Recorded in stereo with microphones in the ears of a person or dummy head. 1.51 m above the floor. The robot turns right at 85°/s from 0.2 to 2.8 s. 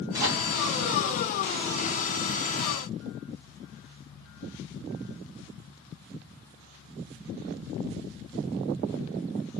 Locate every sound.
0.1 s a microwave: 15° right (ahead or behind), 1.8 m; by 0.5 s 40° right (ahead or behind), 1.8 m